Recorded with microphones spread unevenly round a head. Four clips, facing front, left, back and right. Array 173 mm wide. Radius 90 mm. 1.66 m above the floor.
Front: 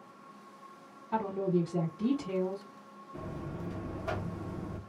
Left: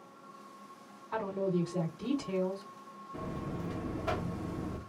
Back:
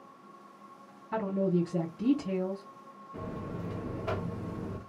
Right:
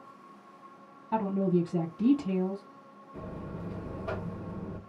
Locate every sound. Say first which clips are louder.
1.1 s a woman speaking: right 5 dB, back 1 dB; 115° right, 1.4 m
3.1 s a buzzer: left 1 dB, back 2 dB; 105° left, 1.0 m